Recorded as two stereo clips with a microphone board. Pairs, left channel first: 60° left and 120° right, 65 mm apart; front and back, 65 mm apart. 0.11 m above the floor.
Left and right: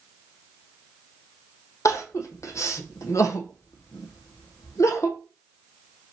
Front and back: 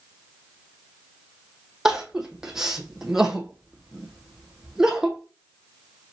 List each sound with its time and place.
1.9 s crying: 95° left, 0.8 m